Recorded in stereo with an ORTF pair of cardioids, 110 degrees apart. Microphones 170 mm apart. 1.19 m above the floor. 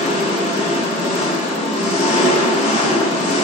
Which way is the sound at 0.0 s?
45° left.